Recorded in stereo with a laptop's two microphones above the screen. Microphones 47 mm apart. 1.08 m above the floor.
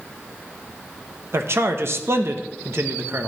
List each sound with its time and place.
1.3 s a man speaking: 60° right (ahead or behind), 1.0 m